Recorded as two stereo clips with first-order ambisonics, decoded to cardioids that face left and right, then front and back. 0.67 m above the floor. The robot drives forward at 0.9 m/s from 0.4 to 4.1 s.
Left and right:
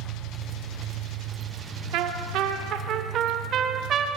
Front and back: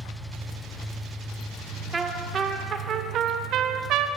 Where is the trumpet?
110° right, 1.9 m; by 4.1 s 145° right, 3 m.